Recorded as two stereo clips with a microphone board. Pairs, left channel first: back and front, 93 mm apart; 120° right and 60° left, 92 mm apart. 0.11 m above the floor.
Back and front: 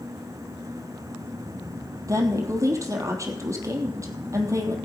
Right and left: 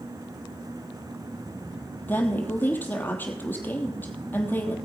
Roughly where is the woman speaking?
Ahead right.